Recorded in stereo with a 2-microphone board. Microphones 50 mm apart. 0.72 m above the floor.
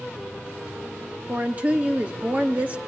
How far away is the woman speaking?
About 1.0 m.